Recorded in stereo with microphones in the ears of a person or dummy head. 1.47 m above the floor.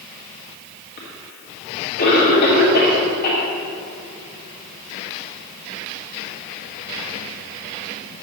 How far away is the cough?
About 1.9 m.